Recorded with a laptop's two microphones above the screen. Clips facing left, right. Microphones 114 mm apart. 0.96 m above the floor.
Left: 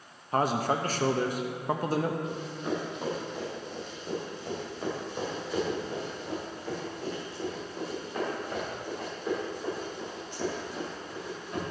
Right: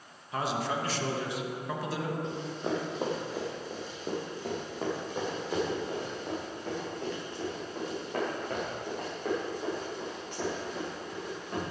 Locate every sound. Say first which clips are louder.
0.3 s a man speaking: left 5 dB; 45° left (ahead or behind), 1.0 m
2.2 s running footsteps: even; 25° right (ahead or behind), 2 m; by 11.6 s 50° right (ahead or behind), 7.5 m